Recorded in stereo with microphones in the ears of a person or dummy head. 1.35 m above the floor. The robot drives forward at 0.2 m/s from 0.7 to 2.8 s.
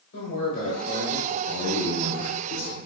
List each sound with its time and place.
0.1 s a man speaking: 70° left (ahead or behind), 1.1 m; by 1.4 s 65° left (ahead or behind), 1.2 m
1.5 s a man speaking: 75° left (ahead or behind), 0.7 m